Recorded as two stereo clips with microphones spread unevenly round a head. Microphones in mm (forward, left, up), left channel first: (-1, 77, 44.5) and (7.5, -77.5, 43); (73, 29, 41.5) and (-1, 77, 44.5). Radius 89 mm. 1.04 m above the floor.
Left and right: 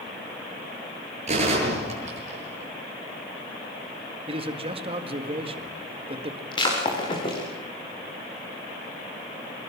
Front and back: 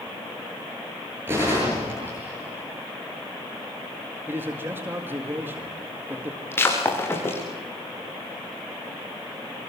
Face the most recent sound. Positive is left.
turn(degrees=30)